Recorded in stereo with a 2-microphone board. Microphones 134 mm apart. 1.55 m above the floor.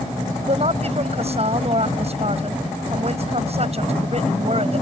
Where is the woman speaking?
45° right (ahead or behind).